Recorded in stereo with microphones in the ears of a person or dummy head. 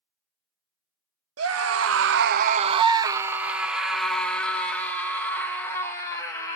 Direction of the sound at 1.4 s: 75° right (ahead or behind).